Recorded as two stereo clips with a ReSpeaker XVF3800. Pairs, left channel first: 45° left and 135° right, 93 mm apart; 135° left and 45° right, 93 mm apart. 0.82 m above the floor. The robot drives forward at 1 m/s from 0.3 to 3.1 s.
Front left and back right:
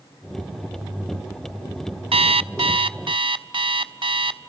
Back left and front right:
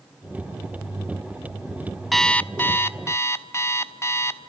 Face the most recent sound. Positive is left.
turn(degrees=-165)